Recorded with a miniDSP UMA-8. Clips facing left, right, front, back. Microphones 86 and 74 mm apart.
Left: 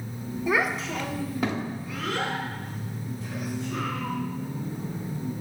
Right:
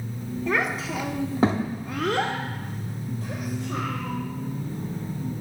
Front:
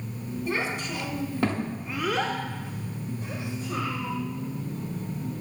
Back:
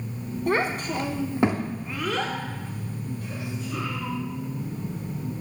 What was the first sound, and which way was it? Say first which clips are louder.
A child speaking: left 1 dB, back 6 dB; 165° left.